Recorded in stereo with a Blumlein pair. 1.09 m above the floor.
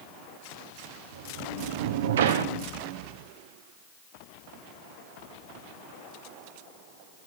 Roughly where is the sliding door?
Ahead right.